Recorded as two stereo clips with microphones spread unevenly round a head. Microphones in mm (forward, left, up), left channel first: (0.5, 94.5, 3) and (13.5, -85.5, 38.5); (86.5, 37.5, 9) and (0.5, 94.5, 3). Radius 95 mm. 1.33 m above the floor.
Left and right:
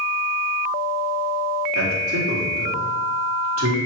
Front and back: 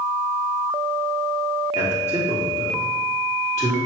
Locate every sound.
1.8 s a man speaking: 80° right, 2.5 m